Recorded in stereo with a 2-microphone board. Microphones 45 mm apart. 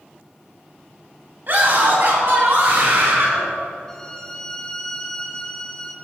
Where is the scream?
50° right (ahead or behind), 3 m.